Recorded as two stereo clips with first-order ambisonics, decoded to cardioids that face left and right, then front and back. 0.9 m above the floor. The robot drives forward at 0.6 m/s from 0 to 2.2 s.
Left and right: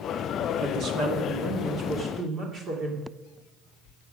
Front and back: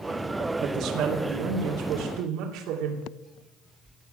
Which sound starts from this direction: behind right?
A woman speaking, at 0.6 s.